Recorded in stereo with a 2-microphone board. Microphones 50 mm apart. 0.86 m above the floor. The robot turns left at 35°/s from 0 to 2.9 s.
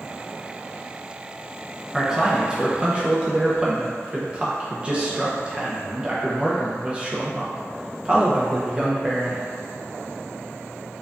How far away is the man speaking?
About 0.6 m.